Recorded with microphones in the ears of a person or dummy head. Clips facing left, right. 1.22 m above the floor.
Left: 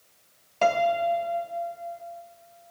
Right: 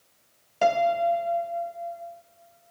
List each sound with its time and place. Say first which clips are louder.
0.6 s a piano: right 1 dB; 5° right (ahead or behind), 0.5 m